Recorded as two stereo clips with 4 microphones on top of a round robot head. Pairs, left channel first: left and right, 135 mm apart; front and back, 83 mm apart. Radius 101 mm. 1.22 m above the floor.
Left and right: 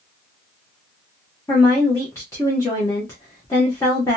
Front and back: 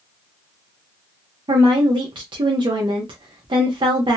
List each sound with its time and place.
1.5 s a woman speaking: 160° left, 0.9 m